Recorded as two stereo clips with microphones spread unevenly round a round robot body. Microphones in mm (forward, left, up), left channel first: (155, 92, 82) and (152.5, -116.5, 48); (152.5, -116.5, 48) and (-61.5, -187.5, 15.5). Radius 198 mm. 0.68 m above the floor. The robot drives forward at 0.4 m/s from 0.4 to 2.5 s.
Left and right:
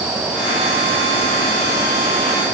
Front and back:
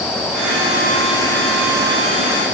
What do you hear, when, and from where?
Only background noise.